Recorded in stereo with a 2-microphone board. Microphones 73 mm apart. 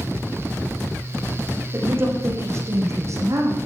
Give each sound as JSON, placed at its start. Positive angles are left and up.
{"t": 1.7, "sound": "a woman speaking", "side_deg": -30, "distance_m": 8.0}